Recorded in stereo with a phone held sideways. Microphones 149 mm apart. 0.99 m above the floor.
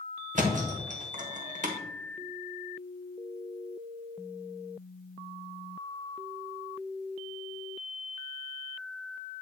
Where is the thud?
55° right (ahead or behind), 1.1 m.